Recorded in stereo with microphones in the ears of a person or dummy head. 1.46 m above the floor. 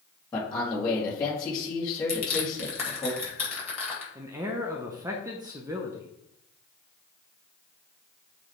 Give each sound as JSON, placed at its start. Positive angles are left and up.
{"t": 0.3, "sound": "a man speaking", "side_deg": 25, "distance_m": 1.9}
{"t": 2.1, "sound": "crushing", "side_deg": 5, "distance_m": 3.0}
{"t": 4.2, "sound": "a man speaking", "side_deg": -20, "distance_m": 0.6}